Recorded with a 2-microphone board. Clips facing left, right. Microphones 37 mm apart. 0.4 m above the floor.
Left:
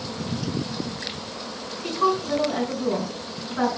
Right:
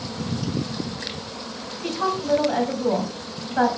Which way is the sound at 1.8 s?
50° right (ahead or behind).